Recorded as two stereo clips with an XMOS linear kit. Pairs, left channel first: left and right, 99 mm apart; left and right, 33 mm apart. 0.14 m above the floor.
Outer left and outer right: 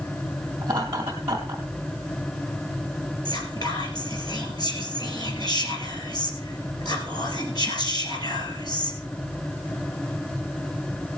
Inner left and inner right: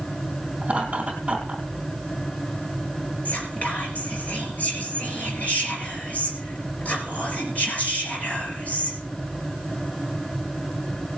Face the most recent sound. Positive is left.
turn(degrees=45)  # may be behind; listen again after turning